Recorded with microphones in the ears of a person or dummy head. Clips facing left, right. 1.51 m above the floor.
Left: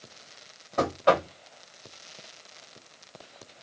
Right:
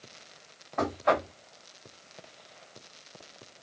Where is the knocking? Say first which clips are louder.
Left 4 dB; 40° left (ahead or behind), 1.3 m.